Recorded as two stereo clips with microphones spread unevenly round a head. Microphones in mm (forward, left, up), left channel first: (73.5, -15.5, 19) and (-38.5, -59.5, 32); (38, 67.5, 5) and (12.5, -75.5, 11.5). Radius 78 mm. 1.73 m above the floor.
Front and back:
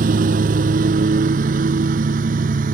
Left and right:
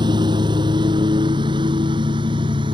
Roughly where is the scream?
No scream in this recording.